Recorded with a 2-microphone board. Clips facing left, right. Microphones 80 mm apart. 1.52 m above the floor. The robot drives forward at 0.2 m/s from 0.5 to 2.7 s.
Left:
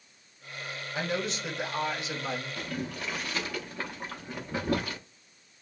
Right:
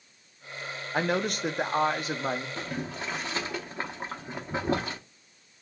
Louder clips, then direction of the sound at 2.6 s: Right 1 dB; 25° right (ahead or behind).